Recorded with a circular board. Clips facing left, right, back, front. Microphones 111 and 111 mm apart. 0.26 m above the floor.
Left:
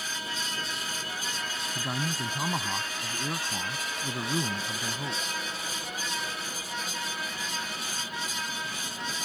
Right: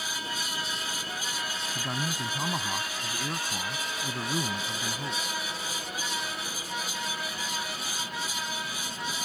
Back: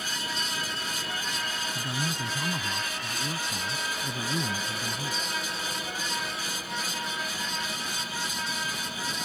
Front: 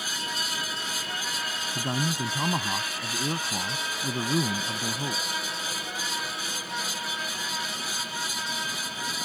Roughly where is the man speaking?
Ahead.